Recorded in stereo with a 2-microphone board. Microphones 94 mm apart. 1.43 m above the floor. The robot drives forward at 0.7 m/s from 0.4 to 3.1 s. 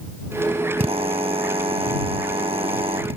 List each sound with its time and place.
0.8 s a drill: 85° right; by 3.2 s 80° right